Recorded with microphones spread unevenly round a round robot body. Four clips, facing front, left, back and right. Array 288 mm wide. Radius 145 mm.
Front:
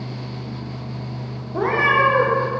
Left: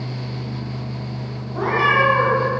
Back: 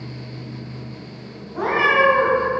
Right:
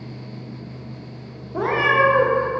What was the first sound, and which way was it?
A cat meowing, 20° right.